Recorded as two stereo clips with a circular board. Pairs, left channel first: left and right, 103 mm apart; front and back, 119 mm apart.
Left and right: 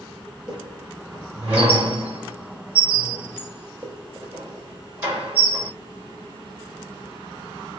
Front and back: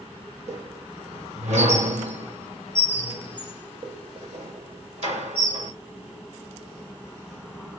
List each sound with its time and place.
0.5 s a squeak: 165° right, 1.2 m